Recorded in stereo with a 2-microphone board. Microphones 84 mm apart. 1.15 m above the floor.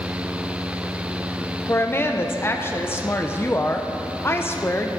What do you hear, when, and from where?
1.7 s a woman speaking: 30° left (ahead or behind), 0.7 m